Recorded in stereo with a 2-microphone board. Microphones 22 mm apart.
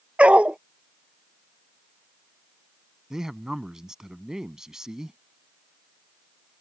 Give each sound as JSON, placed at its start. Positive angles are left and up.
{"t": 0.2, "sound": "a dog barking", "side_deg": -75}
{"t": 3.1, "sound": "a man speaking", "side_deg": -30}